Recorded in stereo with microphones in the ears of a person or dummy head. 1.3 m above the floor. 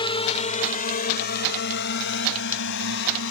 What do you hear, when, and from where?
0.0 s a drone: 25° left (ahead or behind); by 3.3 s 70° left (ahead or behind)